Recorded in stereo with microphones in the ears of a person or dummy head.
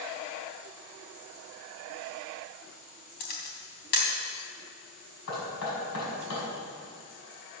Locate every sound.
3.2 s a camera shutter: 50° left (ahead or behind), 2.5 m
5.3 s knocking: 75° left (ahead or behind), 5.5 m